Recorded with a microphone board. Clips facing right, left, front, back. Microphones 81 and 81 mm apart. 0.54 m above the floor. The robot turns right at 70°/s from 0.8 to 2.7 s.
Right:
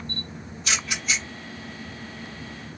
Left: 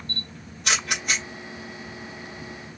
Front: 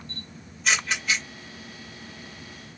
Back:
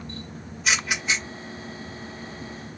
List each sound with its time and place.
0.1 s a camera shutter: 95° left, 2.0 m; by 1.2 s 125° left, 2.0 m